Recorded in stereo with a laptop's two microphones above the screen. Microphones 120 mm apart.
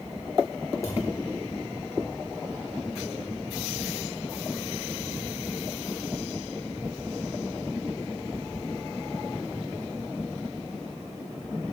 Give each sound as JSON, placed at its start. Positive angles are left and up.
{"t": 0.8, "sound": "a thud", "side_deg": 25, "distance_m": 3.5}